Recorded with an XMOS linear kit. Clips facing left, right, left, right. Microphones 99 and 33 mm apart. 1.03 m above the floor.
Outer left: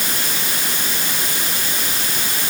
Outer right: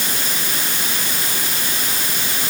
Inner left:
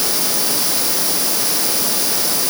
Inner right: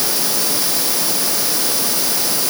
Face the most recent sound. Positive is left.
No sound to turn to.